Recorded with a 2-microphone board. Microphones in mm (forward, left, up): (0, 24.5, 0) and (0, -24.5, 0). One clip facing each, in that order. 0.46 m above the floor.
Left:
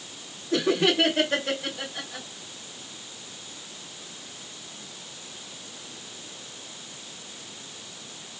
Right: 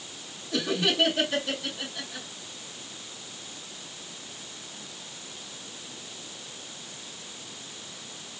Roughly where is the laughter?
Left.